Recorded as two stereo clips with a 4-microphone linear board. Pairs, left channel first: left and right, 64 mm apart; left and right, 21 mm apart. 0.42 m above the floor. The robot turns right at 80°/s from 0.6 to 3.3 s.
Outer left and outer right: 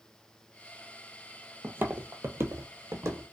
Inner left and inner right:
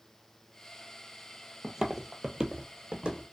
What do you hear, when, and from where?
1.6 s footsteps: 40° right (ahead or behind), 0.6 m